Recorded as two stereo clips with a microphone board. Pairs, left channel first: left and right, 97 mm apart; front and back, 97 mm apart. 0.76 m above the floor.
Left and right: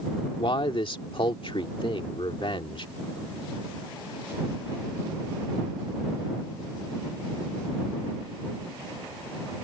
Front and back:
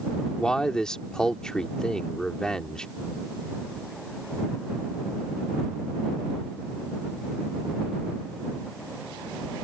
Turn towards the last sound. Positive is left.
turn(degrees=80)